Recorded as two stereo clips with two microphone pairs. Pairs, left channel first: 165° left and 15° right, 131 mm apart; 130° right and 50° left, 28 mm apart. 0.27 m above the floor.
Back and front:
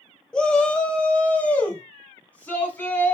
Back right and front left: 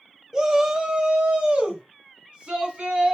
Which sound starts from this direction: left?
A shout, at 0.3 s.